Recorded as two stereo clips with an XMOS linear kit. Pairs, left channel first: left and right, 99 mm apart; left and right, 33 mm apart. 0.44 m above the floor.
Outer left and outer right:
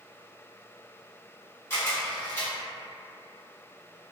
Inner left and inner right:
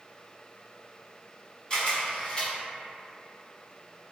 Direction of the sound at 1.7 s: 25° left (ahead or behind).